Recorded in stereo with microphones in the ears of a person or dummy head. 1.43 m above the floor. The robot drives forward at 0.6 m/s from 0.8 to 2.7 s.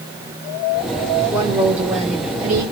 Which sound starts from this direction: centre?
A woman speaking, at 1.3 s.